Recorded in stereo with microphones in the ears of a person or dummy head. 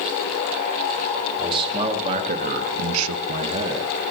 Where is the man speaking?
15° right (ahead or behind), 2.5 m; by 3.9 s 25° right (ahead or behind), 1.5 m.